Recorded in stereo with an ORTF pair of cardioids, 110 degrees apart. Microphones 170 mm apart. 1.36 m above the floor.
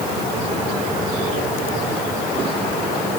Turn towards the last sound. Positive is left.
No sound to turn to.